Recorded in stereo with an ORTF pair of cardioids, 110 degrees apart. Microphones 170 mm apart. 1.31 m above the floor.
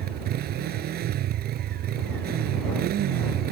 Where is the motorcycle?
65° right.